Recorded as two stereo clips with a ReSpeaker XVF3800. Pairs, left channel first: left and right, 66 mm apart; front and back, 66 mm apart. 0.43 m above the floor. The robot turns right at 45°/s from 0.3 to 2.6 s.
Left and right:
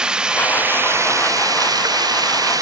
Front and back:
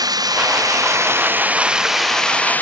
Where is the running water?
165° right; by 2.6 s 65° right.